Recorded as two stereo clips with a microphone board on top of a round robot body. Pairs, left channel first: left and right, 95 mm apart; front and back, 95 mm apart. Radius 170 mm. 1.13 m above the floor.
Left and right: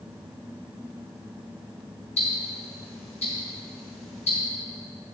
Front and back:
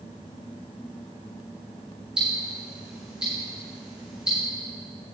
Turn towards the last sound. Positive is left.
turn(degrees=100)